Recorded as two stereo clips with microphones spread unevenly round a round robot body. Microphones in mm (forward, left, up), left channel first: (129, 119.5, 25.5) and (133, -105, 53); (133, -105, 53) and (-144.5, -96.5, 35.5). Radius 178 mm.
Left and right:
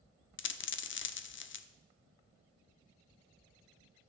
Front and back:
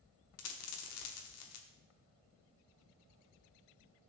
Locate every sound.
0.4 s a dropped coin: 50° left, 0.6 m